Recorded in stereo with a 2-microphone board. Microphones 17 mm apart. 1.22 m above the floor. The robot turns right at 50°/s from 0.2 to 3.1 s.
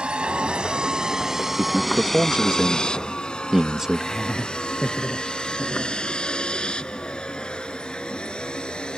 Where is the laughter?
25° left (ahead or behind).